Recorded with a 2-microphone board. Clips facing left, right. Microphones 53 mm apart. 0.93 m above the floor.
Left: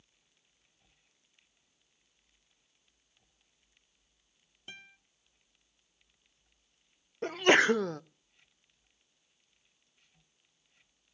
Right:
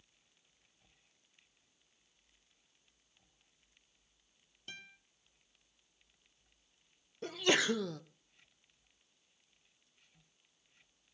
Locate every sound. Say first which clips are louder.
4.7 s a guitar: left 1 dB; 20° left (ahead or behind), 1.9 m
7.2 s a sneeze: left 8 dB; 45° left (ahead or behind), 0.5 m